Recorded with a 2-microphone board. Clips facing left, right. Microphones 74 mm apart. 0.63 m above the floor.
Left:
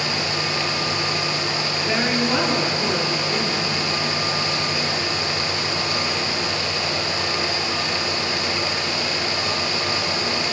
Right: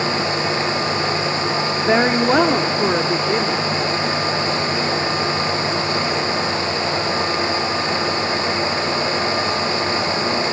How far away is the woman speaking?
About 1.2 m.